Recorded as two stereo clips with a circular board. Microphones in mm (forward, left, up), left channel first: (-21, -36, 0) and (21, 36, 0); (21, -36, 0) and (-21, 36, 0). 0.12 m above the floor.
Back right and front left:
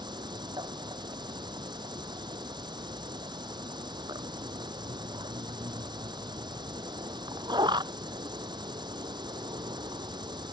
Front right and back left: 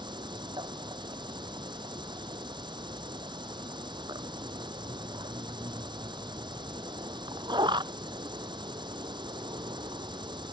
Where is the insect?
90° left.